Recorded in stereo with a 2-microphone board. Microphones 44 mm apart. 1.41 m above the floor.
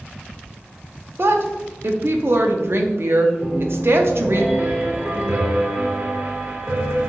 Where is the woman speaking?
60° right (ahead or behind), 0.5 m.